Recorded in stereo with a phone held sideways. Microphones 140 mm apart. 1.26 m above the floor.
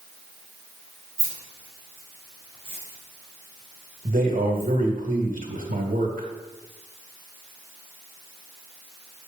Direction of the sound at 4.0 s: 80° right.